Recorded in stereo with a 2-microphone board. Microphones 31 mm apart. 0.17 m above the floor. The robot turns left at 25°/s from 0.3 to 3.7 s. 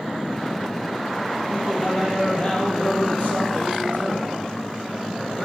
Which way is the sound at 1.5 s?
170° left.